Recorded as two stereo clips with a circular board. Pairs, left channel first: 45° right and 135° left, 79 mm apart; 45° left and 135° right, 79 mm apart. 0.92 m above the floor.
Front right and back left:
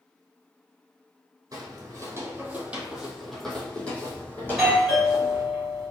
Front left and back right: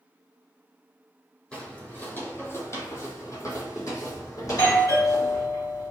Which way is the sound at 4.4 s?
55° left.